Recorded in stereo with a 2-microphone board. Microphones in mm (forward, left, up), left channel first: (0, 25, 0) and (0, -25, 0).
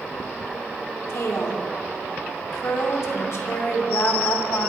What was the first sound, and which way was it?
A woman speaking, 65° left (ahead or behind).